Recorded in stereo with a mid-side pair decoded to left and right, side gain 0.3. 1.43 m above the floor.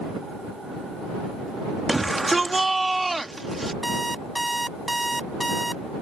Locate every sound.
1.9 s a shout: 20° right
3.8 s an alarm clock: 10° right